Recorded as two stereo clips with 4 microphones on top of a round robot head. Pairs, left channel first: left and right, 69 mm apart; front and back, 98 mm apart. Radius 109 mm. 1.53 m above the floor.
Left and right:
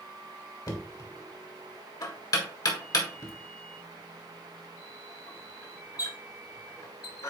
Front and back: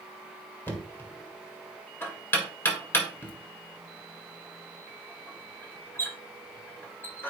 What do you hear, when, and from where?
0.7 s knocking: 70° left, 1.8 m